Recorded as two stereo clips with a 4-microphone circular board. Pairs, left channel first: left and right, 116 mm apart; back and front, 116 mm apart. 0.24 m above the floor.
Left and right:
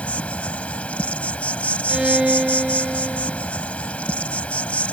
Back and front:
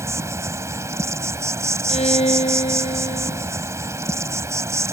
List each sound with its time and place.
0.0 s an insect: 25° left
1.9 s a violin: 175° right